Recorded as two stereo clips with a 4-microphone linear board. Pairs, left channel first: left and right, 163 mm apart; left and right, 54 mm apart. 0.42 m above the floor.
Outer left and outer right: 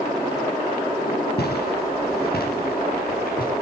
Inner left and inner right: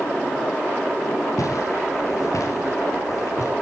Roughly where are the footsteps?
Left.